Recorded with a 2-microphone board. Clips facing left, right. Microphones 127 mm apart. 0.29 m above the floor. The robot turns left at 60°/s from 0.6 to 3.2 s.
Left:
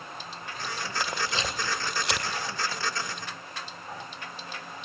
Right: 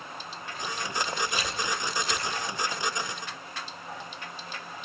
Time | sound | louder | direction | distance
1.0 | a camera shutter | even | 5° left (ahead or behind) | 2.5 m